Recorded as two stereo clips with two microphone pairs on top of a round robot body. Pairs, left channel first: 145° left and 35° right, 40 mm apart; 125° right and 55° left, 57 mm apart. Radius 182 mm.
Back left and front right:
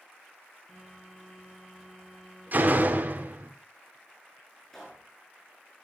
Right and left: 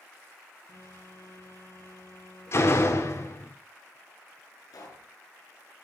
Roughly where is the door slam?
Right.